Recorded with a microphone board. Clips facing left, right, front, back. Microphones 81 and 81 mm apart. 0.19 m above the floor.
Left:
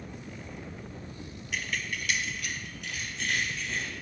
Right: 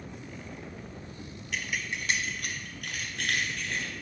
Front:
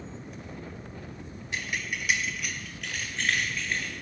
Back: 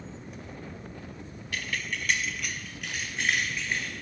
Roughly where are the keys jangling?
Ahead.